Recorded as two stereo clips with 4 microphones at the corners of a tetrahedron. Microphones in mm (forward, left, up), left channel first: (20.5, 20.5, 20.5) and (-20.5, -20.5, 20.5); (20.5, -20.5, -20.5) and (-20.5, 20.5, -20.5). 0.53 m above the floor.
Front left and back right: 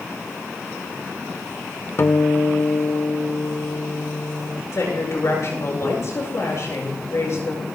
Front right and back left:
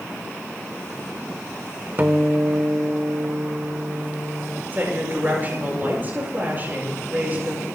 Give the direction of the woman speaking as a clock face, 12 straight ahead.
9 o'clock.